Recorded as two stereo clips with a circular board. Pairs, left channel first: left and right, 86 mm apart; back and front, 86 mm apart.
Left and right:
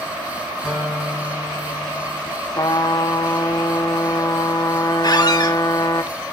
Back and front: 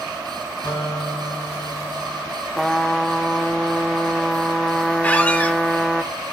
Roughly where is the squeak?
Left.